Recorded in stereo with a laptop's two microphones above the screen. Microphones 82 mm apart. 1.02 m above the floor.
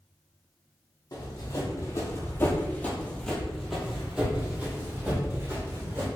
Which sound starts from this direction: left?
Running footsteps, at 1.1 s.